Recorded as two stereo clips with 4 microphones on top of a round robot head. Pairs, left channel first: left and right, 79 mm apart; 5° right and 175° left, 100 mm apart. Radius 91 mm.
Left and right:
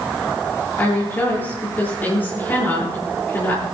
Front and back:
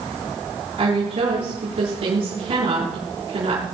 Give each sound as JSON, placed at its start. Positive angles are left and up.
{"t": 0.8, "sound": "a woman speaking", "azimuth_deg": 155, "distance_m": 7.0}